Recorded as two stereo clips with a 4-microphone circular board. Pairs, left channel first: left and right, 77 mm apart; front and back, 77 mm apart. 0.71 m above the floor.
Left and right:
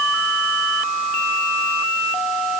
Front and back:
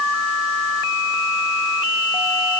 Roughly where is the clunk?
No clunk in this recording.